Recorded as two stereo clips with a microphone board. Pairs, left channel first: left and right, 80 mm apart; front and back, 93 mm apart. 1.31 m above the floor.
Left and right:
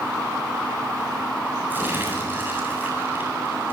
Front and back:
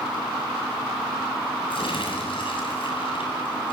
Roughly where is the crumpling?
Ahead right.